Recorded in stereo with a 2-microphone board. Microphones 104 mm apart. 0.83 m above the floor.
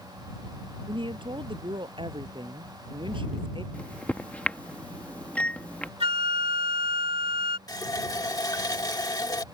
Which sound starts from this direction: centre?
A microwave, at 3.7 s.